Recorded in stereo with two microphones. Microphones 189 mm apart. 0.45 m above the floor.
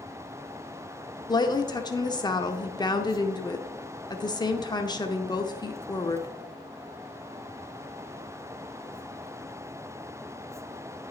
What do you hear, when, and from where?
1.3 s a woman speaking: 20° left (ahead or behind), 0.7 m